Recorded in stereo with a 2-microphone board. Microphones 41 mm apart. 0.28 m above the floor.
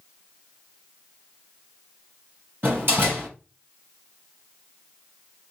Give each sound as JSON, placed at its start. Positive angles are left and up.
{"t": 2.6, "sound": "a door slam", "side_deg": -65, "distance_m": 4.5}